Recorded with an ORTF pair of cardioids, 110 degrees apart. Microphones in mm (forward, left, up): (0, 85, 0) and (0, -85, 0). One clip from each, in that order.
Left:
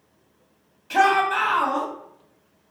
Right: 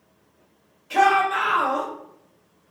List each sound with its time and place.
0.9 s a shout: 25° left, 1.6 m